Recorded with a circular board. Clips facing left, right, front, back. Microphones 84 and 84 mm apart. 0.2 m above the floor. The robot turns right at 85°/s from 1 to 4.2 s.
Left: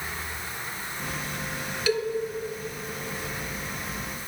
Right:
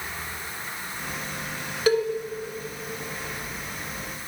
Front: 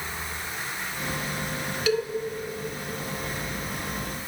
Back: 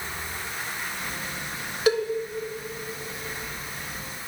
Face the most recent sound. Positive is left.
turn(degrees=65)